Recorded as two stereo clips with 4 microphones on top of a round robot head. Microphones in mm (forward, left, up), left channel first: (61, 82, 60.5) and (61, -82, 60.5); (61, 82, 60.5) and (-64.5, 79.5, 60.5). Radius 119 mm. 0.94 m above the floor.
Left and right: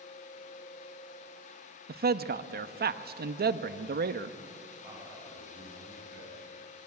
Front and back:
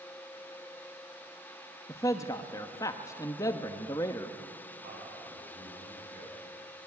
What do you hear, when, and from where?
1.9 s a man speaking: 70° right, 1.1 m
4.8 s a man speaking: 165° right, 9.5 m